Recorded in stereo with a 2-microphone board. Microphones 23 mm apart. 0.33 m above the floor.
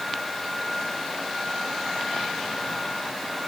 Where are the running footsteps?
No running footsteps in this recording.